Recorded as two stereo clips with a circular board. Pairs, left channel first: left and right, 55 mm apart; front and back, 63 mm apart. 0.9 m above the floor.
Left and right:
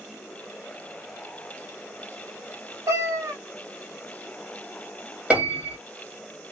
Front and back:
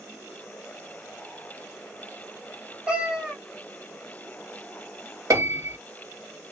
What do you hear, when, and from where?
2.9 s a cat meowing: 110° right, 1.1 m
5.3 s a piano: 155° right, 1.5 m